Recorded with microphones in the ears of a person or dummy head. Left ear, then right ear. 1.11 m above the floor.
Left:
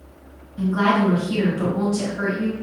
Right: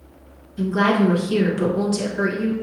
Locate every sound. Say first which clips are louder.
0.6 s a woman speaking: even; 80° right, 1.2 m